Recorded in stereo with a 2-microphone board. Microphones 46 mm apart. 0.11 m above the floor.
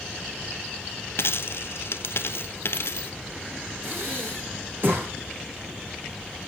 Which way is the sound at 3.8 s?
50° right (ahead or behind).